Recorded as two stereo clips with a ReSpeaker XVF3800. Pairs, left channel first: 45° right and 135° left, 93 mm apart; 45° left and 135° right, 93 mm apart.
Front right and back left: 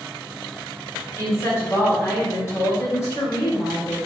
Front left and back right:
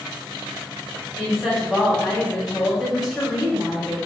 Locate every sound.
1.2 s a woman speaking: 50° right, 1.2 m